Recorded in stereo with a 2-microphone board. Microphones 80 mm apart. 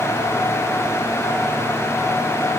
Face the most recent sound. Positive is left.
No sound to turn to.